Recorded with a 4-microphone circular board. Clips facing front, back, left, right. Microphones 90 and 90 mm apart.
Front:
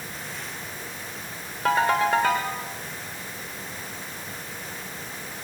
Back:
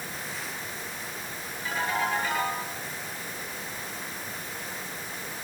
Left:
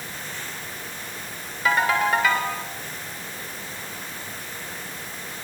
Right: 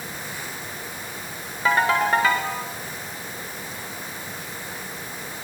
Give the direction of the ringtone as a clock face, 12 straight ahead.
1 o'clock.